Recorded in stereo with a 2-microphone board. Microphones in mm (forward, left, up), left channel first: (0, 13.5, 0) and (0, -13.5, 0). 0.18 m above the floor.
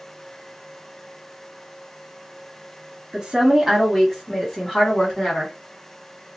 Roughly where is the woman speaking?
Right.